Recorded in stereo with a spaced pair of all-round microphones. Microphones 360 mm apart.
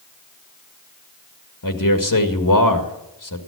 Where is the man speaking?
60° left (ahead or behind), 1.9 m.